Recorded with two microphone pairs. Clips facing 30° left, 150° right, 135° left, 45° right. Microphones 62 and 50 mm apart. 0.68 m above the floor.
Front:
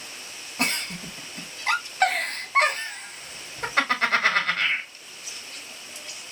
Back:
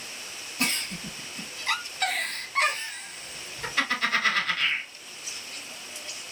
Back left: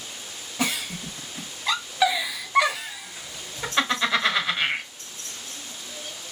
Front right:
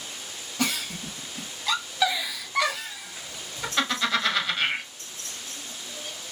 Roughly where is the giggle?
Ahead left.